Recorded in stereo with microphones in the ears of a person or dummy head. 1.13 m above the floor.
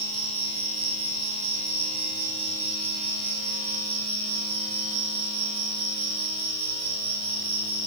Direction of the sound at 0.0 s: 20° right (ahead or behind).